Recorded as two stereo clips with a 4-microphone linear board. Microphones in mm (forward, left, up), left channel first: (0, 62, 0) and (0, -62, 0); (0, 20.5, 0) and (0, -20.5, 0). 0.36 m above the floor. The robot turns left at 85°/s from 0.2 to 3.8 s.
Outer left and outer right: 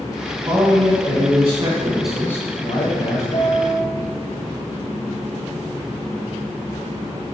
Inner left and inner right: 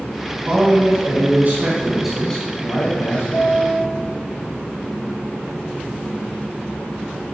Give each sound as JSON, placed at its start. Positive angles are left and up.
{"t": 0.5, "sound": "a man speaking", "azimuth_deg": -40, "distance_m": 3.0}
{"t": 3.3, "sound": "a piano", "azimuth_deg": 80, "distance_m": 3.0}